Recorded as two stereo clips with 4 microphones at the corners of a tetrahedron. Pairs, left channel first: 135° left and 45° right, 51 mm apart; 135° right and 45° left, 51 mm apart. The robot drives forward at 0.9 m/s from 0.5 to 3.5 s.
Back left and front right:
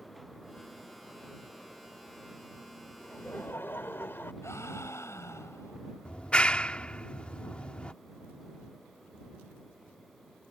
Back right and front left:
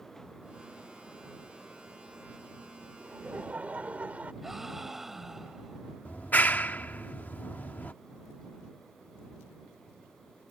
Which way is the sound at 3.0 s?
85° left.